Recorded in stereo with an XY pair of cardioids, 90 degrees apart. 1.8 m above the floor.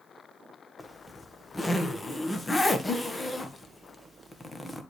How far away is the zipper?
About 1.7 m.